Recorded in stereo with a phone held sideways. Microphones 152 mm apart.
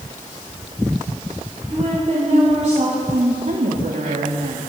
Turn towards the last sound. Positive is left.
turn(degrees=-70)  # may be behind; listen again after turning